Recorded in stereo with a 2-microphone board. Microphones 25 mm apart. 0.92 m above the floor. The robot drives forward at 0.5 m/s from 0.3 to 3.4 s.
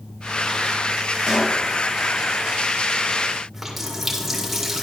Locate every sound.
1.3 s a pop: 20° right (ahead or behind), 3.5 m
3.5 s a running tap: 10° right (ahead or behind), 2 m